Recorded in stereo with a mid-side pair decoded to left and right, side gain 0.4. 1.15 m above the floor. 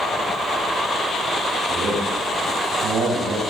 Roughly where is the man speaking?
Right.